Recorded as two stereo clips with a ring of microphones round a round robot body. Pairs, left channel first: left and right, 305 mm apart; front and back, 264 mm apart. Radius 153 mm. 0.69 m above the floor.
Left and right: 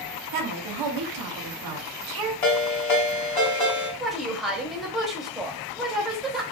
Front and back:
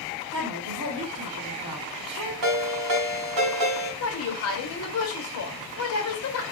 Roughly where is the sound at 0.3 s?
Right.